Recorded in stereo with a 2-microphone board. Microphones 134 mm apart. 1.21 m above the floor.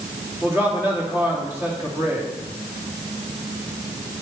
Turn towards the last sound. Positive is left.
turn(degrees=-20)  # may be behind; listen again after turning